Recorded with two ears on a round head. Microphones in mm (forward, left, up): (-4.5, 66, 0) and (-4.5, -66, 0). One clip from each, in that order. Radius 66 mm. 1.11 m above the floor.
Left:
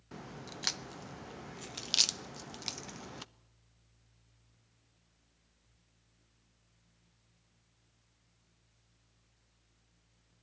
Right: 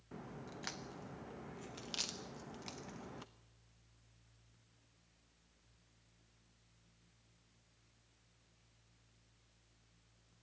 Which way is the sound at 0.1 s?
60° left (ahead or behind).